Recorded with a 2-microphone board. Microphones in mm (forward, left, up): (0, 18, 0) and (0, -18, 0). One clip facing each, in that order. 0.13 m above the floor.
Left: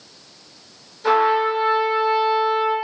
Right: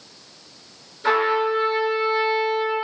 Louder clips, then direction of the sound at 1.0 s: Left 2 dB; 20° right (ahead or behind).